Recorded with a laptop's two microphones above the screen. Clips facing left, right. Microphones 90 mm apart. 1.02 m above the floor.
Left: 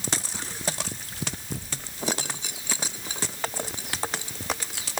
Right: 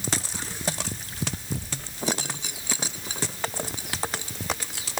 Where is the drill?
I don't hear a drill.